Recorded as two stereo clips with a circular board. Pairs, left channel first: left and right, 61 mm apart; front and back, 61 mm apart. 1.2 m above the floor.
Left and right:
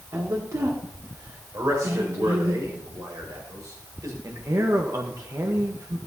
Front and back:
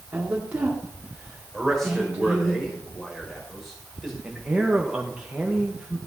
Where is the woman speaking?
110° right, 2.5 m.